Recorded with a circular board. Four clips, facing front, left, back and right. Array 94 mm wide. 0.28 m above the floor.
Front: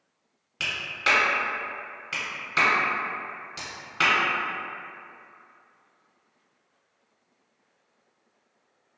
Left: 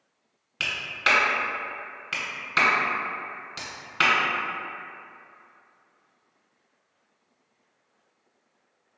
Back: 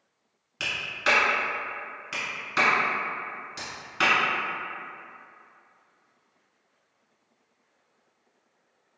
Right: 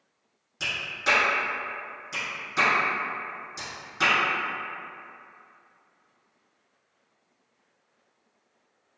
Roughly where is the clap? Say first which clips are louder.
Left 2 dB, back 1 dB; left.